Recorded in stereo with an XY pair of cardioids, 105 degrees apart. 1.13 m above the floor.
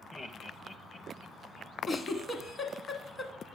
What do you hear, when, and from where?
0.1 s laughter: 20° left, 0.6 m; by 1.7 s 55° left, 1.3 m
1.9 s a giggle: 30° left, 1.2 m